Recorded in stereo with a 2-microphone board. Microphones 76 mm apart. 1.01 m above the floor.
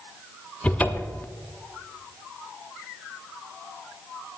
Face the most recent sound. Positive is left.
turn(degrees=20)  # may be behind; listen again after turning